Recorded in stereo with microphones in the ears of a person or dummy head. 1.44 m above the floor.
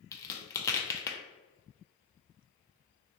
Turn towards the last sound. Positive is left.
turn(degrees=15)  # may be behind; listen again after turning